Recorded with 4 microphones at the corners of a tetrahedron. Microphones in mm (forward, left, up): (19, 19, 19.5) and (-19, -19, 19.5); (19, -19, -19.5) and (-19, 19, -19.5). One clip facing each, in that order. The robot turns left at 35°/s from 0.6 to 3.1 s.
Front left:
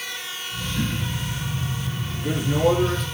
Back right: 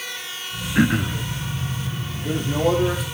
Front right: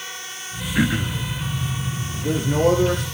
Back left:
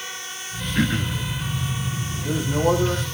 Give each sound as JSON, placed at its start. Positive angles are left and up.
{"t": 0.8, "sound": "throat clearing", "azimuth_deg": -120, "distance_m": 0.9}
{"t": 2.1, "sound": "a man speaking", "azimuth_deg": -20, "distance_m": 6.0}